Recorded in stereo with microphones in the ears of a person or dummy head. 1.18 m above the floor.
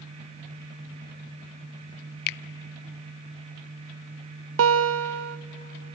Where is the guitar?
80° right, 0.7 m.